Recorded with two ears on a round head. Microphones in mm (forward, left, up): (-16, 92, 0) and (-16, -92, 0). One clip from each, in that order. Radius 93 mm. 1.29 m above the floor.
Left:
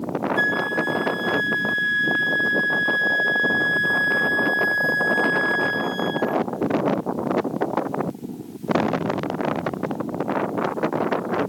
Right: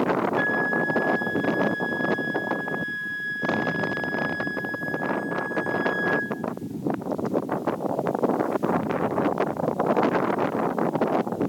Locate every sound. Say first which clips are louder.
0.4 s a flute: left 2 dB; 65° left (ahead or behind), 1.0 m